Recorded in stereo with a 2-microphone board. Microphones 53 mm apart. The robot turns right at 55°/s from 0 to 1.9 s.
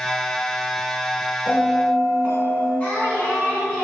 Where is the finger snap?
No finger snap in this recording.